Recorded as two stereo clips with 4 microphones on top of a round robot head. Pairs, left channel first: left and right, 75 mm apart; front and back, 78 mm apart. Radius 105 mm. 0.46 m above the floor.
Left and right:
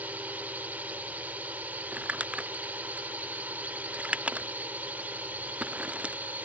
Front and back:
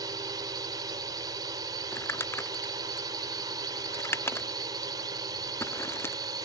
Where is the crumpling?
30° right.